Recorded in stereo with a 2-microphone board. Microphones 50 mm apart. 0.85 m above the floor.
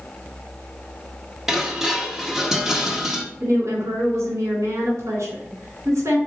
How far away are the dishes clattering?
About 0.9 m.